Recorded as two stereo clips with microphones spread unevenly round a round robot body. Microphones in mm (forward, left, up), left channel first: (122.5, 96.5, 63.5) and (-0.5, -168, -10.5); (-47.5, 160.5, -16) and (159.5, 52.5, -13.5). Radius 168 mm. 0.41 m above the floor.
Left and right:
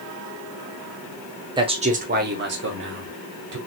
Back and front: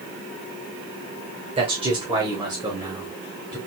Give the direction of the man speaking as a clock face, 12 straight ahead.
3 o'clock.